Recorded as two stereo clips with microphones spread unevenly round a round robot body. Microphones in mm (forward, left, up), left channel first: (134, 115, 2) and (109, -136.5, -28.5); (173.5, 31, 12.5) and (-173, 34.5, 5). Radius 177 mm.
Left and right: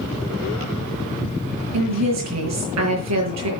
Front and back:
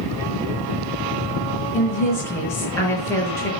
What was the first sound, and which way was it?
A woman speaking, 85° right.